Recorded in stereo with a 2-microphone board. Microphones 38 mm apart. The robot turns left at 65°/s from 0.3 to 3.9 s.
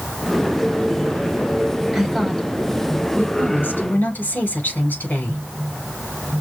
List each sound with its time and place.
1.9 s a woman speaking: 165° right, 4.5 m; by 5.4 s 70° left, 4.5 m